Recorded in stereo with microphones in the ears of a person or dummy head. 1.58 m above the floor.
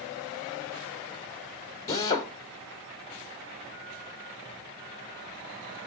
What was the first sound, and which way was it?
A drill, 20° left (ahead or behind).